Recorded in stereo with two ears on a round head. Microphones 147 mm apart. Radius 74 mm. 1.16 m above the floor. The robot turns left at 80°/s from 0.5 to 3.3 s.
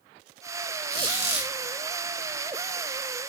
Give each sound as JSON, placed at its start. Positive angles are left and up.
{"t": 0.9, "sound": "a squeak", "azimuth_deg": -105, "distance_m": 1.0}